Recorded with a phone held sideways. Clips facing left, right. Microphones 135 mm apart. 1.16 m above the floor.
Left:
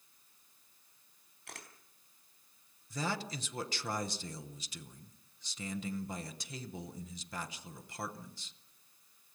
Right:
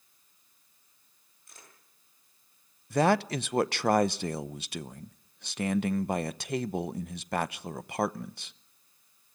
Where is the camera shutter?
80° left, 4 m.